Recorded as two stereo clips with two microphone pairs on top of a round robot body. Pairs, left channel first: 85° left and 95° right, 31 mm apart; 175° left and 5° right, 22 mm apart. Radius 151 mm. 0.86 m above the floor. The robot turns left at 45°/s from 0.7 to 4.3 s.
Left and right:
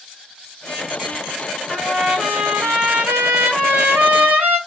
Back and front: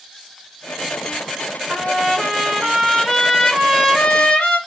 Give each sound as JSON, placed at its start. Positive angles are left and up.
{"t": 1.7, "sound": "a trumpet", "azimuth_deg": -15, "distance_m": 0.8}